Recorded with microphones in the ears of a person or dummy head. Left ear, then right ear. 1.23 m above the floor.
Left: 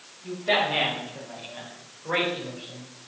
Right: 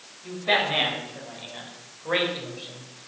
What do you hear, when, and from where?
0.2 s a man speaking: 20° right (ahead or behind), 5.5 m; by 3.1 s 35° right (ahead or behind), 4 m